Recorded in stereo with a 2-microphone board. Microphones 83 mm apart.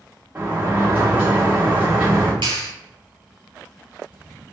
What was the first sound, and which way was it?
A sliding door, 20° right (ahead or behind).